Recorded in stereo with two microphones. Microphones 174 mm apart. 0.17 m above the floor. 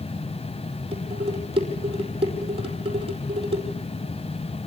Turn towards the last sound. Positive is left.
turn(degrees=-30)  # may be behind; listen again after turning